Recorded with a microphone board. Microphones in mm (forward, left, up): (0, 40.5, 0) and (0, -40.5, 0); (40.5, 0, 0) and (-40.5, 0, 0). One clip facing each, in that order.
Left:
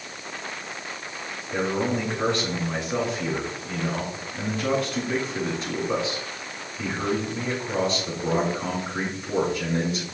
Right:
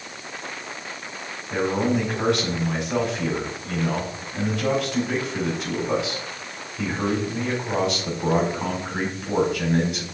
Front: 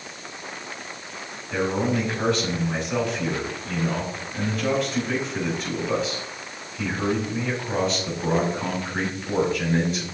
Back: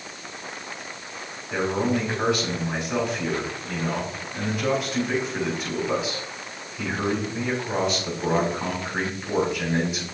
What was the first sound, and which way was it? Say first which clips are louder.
A man speaking: right 3 dB, even; 95° right.